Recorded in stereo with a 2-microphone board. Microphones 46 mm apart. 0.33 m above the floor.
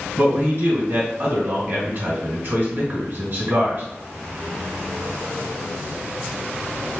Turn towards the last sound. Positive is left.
turn(degrees=-50)  # may be behind; listen again after turning